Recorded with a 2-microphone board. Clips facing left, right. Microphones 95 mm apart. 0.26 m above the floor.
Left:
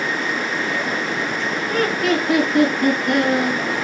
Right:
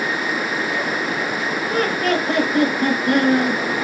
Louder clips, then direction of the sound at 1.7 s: Left 1 dB; 35° right (ahead or behind).